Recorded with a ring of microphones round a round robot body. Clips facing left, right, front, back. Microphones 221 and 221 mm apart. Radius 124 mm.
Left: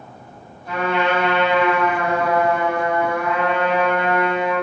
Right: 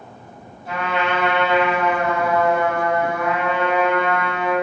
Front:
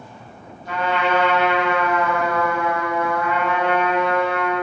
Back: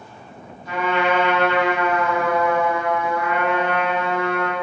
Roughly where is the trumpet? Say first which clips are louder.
Left 3 dB, back 1 dB; behind.